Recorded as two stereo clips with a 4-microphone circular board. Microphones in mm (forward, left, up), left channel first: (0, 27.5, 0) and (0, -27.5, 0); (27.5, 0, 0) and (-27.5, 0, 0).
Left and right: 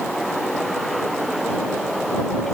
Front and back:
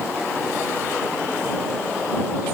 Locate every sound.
Only background noise.